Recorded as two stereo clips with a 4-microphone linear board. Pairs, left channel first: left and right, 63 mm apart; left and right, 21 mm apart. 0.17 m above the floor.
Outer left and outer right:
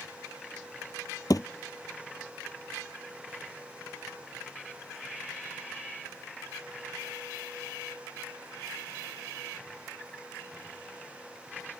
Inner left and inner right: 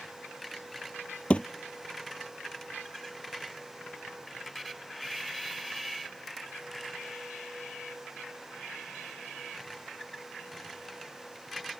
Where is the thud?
80° left.